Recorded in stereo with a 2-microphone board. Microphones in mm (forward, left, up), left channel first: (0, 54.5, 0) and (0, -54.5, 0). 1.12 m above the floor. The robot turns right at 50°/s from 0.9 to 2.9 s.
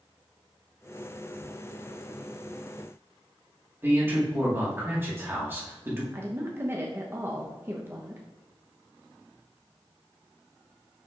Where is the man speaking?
20° right (ahead or behind), 1.7 m.